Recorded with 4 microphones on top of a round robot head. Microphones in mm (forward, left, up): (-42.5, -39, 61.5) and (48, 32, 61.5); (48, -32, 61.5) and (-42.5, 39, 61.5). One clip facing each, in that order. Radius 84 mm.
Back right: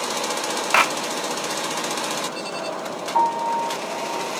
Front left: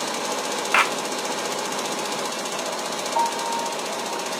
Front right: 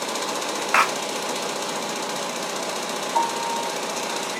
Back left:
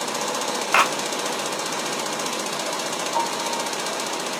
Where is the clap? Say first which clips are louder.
Back right 2 dB, back left 1 dB; 150° right, 1.2 m.